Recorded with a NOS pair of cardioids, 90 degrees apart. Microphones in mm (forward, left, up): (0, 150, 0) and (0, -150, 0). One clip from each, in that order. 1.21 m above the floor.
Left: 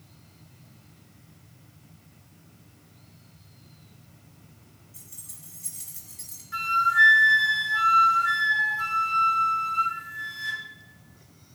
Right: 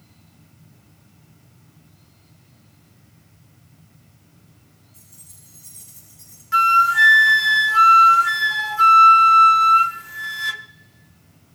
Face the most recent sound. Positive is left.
turn(degrees=-60)